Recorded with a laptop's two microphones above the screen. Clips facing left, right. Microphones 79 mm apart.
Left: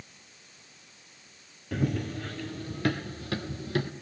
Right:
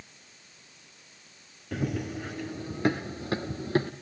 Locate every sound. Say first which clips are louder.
1.7 s running footsteps: left 1 dB; 5° right (ahead or behind), 1.4 m; by 3.9 s 35° right (ahead or behind), 2 m